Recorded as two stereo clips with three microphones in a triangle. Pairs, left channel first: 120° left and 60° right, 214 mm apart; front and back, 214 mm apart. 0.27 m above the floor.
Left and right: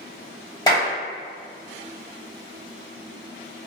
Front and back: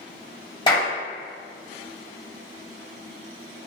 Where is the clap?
55° left, 1.0 m.